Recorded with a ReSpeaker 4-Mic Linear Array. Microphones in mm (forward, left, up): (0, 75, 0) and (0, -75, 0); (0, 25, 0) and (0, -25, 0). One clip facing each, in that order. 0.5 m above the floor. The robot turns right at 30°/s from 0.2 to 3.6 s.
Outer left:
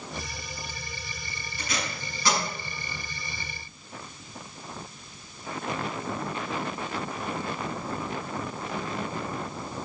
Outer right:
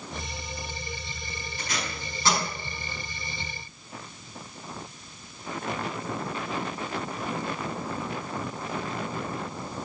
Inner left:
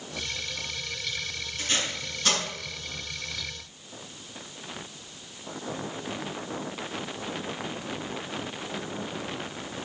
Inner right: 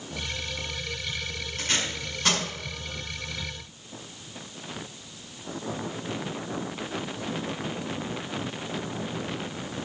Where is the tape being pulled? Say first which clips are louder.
Outer left 2 dB, inner right 1 dB; 45° right (ahead or behind), 5.5 m; by 2.4 s 25° right (ahead or behind), 5.5 m.